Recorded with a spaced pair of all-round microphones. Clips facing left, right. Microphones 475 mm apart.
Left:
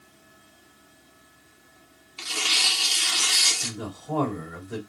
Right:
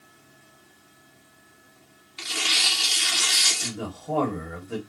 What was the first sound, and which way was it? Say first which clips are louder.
Tearing paper: right 1 dB; 40° right (ahead or behind).